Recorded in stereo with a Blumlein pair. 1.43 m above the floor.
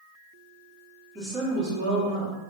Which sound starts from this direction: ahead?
A woman speaking, at 1.1 s.